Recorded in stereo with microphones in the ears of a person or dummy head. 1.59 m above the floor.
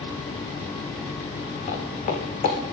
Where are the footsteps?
40° left (ahead or behind), 4 m.